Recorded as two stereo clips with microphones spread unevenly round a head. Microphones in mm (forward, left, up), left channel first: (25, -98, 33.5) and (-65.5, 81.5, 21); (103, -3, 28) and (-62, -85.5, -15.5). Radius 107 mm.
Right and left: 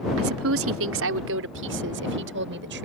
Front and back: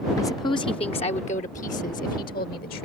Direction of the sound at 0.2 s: 105° left.